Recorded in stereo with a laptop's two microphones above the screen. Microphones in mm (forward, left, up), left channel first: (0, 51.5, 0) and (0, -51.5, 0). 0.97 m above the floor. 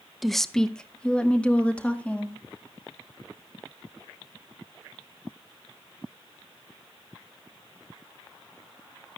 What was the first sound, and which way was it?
A woman speaking, centre (ahead or behind).